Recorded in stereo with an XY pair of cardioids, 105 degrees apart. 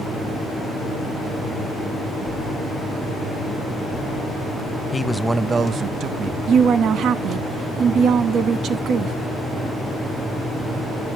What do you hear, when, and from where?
4.9 s a man speaking: 25° left, 0.6 m; by 6.4 s 70° right, 1.2 m
6.5 s a woman speaking: 70° right, 1.1 m